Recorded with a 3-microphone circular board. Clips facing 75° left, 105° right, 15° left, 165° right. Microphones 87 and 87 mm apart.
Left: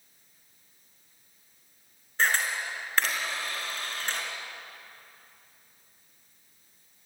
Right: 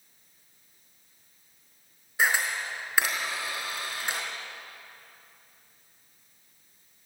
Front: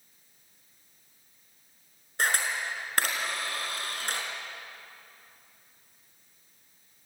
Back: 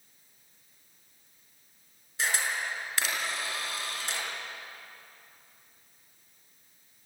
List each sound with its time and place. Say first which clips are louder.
2.2 s a camera shutter: right 1 dB, front 2 dB; 25° right, 5 m